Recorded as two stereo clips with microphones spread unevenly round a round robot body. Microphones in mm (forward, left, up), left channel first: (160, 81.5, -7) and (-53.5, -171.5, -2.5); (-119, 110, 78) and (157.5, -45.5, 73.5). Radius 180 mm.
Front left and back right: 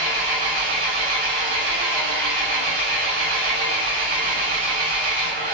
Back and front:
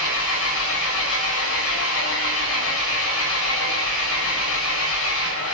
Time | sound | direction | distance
0.0 | an engine running | 155° right | 7 m